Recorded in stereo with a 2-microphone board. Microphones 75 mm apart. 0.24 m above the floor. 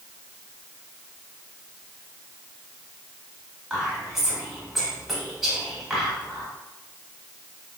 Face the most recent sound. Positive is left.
turn(degrees=0)  # may be behind; listen again after turning